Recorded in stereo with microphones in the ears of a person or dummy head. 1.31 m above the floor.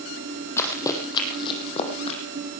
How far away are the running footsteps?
About 3 m.